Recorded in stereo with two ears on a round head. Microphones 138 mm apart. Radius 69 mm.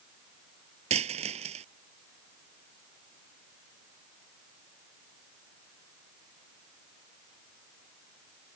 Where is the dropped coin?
45° right (ahead or behind).